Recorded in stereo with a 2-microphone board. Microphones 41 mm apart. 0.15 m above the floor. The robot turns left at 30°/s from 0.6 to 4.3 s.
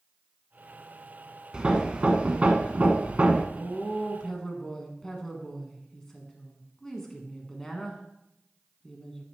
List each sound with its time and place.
1.5 s hammering: 45° right, 0.8 m; by 3.5 s 100° right, 0.8 m
3.5 s a woman speaking: 5° left (ahead or behind), 1.6 m; by 9.2 s 15° left (ahead or behind), 1.6 m